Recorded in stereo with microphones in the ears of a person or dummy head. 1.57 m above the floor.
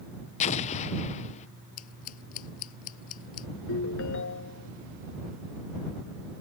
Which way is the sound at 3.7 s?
70° left (ahead or behind).